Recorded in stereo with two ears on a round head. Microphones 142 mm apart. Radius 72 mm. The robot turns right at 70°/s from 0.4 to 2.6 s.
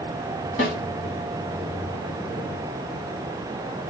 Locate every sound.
0.6 s a snare drum: 50° left (ahead or behind), 1.9 m